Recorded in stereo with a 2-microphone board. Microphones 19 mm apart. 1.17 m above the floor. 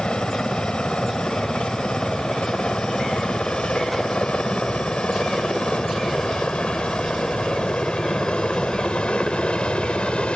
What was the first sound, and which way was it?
A helicopter, 70° left (ahead or behind).